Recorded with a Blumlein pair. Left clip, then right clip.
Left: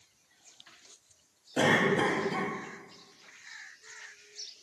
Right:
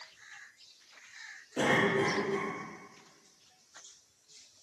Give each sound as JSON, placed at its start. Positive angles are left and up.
{"t": 1.6, "sound": "a cough", "azimuth_deg": 20, "distance_m": 0.9}